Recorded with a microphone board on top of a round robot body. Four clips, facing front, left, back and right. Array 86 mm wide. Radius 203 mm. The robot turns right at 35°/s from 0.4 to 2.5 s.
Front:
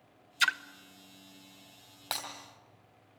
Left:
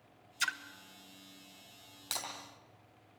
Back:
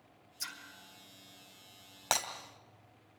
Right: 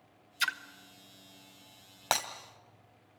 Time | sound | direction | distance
0.4 | a splash | 15° right | 0.9 m
2.1 | breaking glass | 110° right | 1.9 m